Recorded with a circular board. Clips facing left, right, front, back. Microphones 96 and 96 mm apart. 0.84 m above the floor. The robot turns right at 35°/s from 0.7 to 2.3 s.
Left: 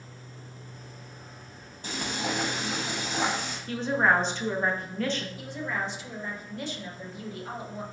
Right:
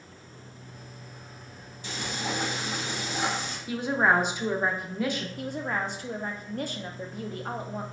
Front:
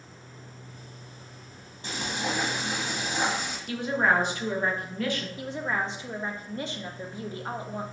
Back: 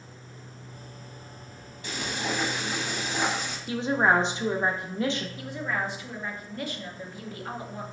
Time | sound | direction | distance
1.8 | frying | 50° left | 1.1 m
3.7 | a woman speaking | 150° right | 0.6 m
5.4 | a woman speaking | 60° right | 0.7 m